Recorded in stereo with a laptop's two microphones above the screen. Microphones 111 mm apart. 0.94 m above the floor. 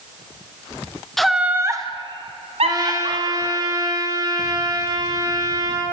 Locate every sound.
1.2 s laughter: 5° left (ahead or behind), 0.6 m; by 3.6 s 65° right (ahead or behind), 1.4 m
2.6 s a trumpet: 30° right (ahead or behind), 1.0 m